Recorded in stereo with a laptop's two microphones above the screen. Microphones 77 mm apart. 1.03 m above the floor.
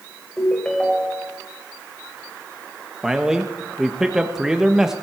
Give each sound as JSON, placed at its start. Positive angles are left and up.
{"t": 0.4, "sound": "a ringtone", "side_deg": 10, "distance_m": 1.7}
{"t": 3.0, "sound": "a man speaking", "side_deg": -5, "distance_m": 1.2}